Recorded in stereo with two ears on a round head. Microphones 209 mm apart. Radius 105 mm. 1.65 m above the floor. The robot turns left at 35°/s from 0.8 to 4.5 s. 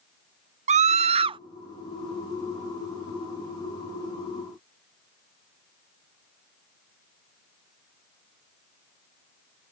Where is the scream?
30° right (ahead or behind); by 1.4 s 20° right (ahead or behind).